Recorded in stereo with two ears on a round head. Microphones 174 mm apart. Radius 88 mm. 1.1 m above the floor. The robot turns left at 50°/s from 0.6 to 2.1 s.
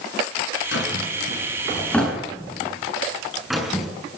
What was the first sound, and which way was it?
A drawer, 70° left (ahead or behind).